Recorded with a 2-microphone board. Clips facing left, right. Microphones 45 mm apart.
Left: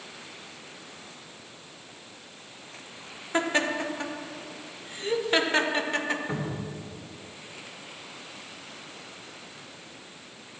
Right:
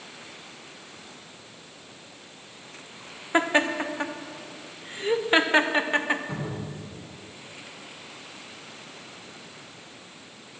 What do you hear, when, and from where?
3.3 s laughter: 25° right (ahead or behind), 0.9 m
6.3 s a cupboard door: 45° left (ahead or behind), 3 m